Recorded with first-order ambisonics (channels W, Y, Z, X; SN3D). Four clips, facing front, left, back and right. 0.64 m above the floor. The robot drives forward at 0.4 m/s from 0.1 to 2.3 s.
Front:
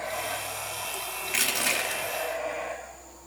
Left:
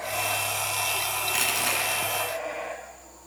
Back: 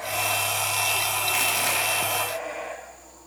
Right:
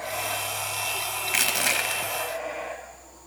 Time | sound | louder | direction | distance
1.3 | crushing | right 3 dB, front 1 dB | 75° right | 1.2 m